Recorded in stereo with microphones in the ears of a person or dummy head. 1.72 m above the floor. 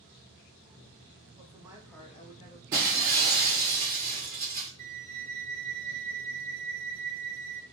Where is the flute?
40° right (ahead or behind), 0.5 m.